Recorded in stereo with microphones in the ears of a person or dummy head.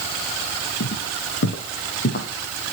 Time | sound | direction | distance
0.8 | footsteps | 60° left (ahead or behind) | 3 m